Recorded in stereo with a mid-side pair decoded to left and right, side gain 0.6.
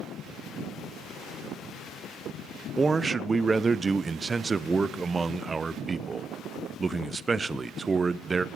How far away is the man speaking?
About 0.6 m.